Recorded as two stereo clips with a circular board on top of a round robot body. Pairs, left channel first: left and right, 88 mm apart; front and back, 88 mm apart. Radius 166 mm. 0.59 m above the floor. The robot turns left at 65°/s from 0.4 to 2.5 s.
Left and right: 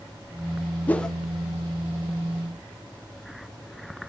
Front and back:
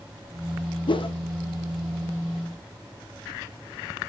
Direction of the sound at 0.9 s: 20° left.